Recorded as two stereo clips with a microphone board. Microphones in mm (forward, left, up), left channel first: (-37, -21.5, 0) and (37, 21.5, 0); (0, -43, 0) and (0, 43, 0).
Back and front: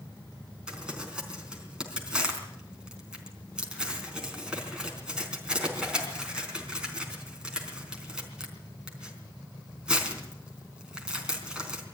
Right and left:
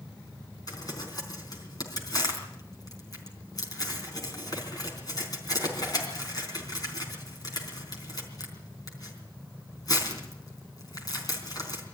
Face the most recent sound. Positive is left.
turn(degrees=-50)